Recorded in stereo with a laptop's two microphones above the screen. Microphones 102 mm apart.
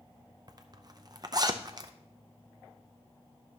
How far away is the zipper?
About 0.6 m.